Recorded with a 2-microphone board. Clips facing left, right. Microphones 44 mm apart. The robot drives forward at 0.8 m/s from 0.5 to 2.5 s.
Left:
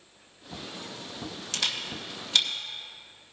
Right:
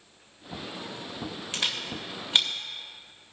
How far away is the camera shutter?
About 1.6 m.